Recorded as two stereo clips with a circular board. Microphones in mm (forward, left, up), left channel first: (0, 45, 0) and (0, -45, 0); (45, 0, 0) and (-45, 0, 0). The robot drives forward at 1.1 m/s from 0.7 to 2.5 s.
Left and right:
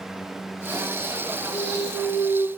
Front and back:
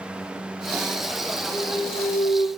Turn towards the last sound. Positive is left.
turn(degrees=55)